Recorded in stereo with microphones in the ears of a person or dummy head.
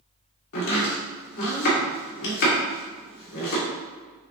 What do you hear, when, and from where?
0.5 s chopping: 55° left (ahead or behind), 1.6 m